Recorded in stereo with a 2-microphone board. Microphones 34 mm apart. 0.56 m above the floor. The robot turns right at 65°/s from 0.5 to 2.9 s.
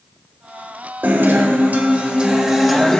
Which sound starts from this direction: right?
A guitar, at 1.0 s.